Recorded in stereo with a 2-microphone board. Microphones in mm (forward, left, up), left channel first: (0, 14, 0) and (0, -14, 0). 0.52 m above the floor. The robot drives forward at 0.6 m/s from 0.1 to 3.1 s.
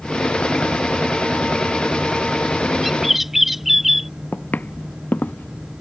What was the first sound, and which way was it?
A bird, 5° right (ahead or behind).